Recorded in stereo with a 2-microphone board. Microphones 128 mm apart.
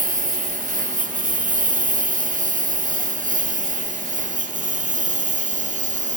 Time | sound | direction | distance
0.0 | a lawn mower | 90° right | ?